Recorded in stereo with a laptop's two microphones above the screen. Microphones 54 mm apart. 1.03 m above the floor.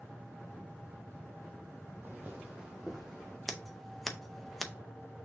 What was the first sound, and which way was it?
Footsteps, 35° right (ahead or behind).